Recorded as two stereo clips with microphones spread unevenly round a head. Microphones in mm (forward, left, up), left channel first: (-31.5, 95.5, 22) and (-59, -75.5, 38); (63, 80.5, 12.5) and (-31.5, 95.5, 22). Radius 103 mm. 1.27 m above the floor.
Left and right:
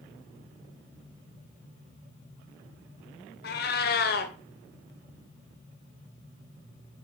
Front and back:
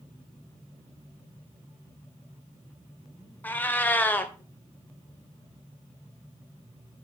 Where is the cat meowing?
60° left, 1.3 m.